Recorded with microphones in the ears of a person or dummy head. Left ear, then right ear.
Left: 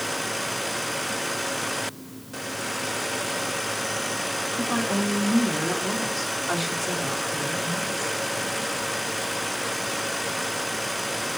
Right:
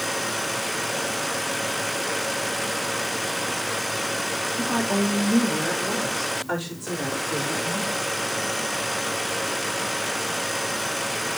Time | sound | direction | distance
4.6 | a woman speaking | 70° left (ahead or behind) | 5.5 m